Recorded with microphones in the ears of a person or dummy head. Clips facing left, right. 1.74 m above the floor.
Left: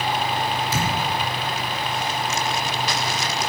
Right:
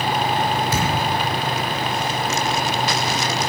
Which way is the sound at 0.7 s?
60° right (ahead or behind).